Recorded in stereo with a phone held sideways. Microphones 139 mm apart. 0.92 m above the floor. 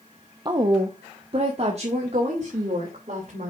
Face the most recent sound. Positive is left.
turn(degrees=-55)  # may be behind; listen again after turning